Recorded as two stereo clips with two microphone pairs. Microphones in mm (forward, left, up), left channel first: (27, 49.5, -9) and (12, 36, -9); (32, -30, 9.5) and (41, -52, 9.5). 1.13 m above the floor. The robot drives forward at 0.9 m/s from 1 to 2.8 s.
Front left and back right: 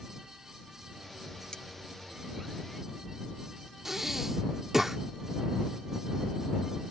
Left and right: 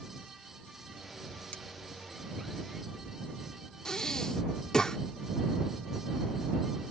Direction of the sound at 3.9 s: 155° left.